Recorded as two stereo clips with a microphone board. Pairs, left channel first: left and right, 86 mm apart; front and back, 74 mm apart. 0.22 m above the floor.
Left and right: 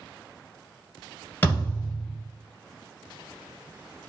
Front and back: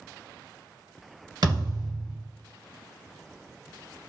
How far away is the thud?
About 1.4 m.